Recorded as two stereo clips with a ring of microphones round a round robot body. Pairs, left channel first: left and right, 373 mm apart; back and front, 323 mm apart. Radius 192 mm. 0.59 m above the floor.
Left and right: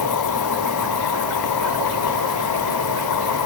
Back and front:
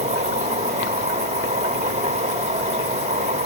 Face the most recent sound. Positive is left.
turn(degrees=65)